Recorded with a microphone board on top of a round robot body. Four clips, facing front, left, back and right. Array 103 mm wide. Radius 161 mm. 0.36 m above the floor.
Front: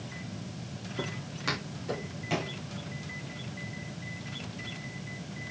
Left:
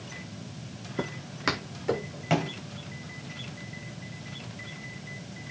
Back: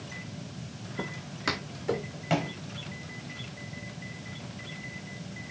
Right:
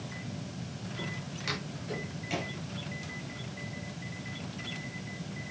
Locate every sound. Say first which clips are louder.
1.0 s footsteps: left 10 dB, back 1 dB; 90° left, 1.6 m; by 2.5 s 115° left, 2.5 m